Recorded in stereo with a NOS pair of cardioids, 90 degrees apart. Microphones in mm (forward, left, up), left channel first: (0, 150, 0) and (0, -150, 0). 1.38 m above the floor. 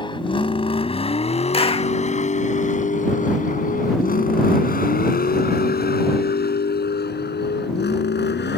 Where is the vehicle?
15° left; by 8.6 s 35° left.